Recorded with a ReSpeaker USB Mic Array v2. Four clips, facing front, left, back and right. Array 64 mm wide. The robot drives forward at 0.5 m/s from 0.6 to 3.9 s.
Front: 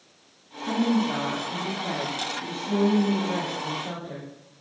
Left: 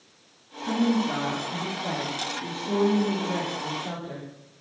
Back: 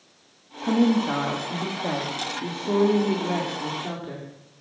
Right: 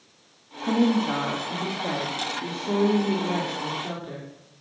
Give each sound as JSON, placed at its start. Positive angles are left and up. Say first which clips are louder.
{"t": 0.6, "sound": "a woman speaking", "louder": "right 2 dB, back 3 dB", "azimuth_deg": -145, "distance_m": 2.5}